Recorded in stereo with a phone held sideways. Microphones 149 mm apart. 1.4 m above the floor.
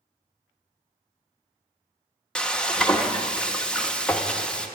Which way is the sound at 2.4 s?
5° left (ahead or behind).